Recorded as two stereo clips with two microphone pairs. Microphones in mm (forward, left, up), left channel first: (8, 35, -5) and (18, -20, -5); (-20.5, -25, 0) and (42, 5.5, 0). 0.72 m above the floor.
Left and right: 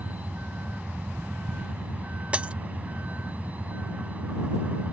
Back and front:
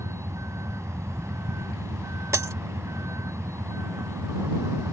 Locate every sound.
0.0 s a vehicle: 20° right
2.3 s breaking glass: 15° right